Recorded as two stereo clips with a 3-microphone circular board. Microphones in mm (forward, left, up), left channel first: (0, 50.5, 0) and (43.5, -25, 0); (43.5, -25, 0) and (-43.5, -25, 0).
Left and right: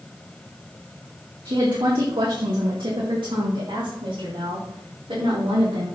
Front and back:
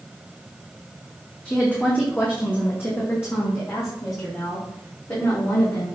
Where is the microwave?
I don't hear a microwave.